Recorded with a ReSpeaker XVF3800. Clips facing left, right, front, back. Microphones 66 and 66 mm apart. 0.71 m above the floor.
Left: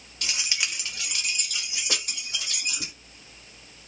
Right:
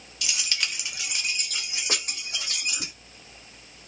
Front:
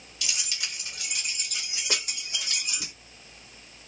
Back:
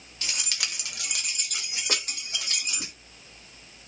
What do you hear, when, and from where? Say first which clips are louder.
0.2 s keys jangling: even, back 1 dB; 130° left, 0.6 m; by 2.9 s 130° right, 2.5 m